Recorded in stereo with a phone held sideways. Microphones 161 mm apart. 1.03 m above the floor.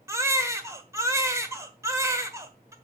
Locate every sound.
0.1 s a baby crying: 20° right (ahead or behind), 1.3 m